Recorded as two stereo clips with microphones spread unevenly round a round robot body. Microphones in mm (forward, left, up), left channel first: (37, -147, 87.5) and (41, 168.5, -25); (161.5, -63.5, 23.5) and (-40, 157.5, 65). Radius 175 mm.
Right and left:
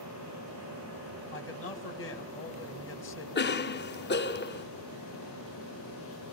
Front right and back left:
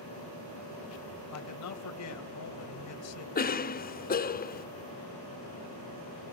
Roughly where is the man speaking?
Ahead right.